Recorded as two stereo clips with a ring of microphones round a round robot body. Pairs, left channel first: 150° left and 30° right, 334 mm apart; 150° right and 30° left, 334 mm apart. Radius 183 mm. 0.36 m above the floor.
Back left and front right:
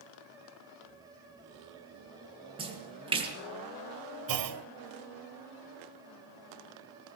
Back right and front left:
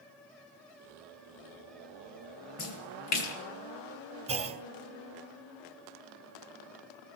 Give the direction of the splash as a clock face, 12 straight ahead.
4 o'clock.